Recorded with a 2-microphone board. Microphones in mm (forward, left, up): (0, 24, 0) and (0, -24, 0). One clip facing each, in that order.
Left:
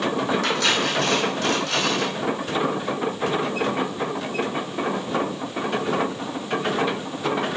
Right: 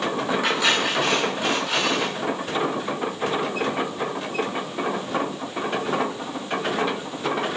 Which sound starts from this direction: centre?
Cutlery clinking, at 0.4 s.